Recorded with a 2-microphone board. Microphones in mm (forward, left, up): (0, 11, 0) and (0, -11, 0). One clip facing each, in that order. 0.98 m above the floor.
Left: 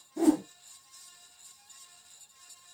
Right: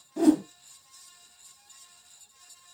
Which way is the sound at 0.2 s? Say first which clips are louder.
Right 3 dB; 55° right (ahead or behind).